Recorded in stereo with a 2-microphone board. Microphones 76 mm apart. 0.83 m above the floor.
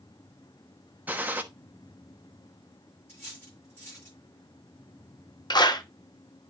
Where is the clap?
65° left (ahead or behind), 1.0 m.